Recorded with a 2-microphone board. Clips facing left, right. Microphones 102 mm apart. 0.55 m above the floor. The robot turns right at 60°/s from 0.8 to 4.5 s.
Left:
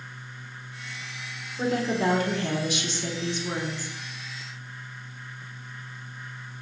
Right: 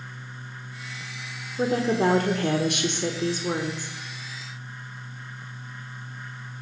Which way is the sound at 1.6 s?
155° right.